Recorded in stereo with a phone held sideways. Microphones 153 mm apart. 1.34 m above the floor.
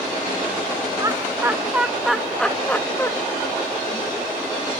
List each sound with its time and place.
1.0 s laughter: 25° right (ahead or behind), 1.6 m; by 3.1 s 20° left (ahead or behind), 1.6 m